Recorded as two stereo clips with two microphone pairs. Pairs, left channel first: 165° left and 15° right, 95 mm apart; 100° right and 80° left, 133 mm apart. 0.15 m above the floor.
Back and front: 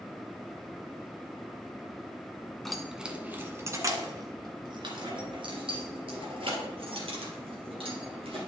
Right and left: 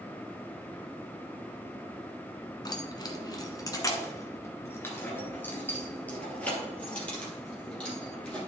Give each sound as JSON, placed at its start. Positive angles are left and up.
{"t": 2.6, "sound": "keys jangling", "azimuth_deg": -115, "distance_m": 1.0}